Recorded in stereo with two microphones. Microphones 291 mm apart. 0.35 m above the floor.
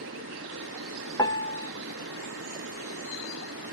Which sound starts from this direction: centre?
A piano, at 1.2 s.